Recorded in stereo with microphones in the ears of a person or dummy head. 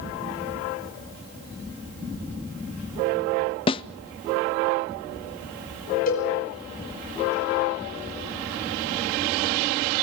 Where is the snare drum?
25° left (ahead or behind), 0.5 m.